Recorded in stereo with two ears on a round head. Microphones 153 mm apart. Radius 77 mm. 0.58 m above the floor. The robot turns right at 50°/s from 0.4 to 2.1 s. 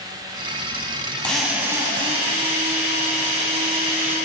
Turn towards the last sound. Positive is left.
turn(degrees=-145)